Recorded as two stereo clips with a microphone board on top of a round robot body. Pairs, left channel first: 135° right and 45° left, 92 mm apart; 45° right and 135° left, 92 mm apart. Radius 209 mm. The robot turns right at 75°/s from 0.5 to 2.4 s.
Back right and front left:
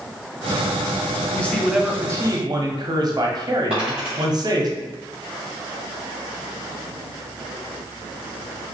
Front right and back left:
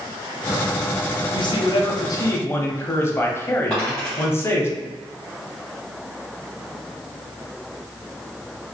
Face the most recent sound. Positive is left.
turn(degrees=30)